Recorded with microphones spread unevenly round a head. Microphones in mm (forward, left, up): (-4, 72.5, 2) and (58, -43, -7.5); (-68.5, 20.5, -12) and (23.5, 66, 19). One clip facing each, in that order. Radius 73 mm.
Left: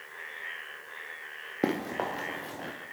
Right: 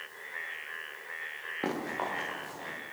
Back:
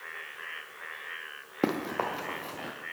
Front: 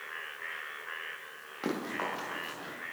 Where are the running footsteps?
170° left, 5 m; by 2.7 s 165° left, 4.5 m.